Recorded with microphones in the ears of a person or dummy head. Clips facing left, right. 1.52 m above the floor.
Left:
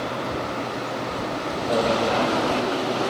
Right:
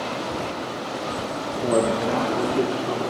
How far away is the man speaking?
About 3 m.